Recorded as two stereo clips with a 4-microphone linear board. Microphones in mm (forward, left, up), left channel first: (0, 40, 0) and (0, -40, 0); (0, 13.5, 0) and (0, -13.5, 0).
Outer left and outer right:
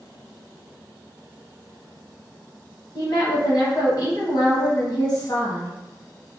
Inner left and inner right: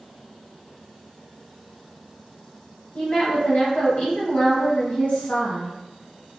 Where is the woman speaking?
55° left (ahead or behind), 0.9 m.